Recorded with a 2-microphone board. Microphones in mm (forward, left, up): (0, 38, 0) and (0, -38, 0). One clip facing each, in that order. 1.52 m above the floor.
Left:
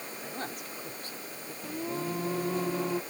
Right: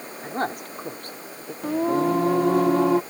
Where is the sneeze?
No sneeze in this recording.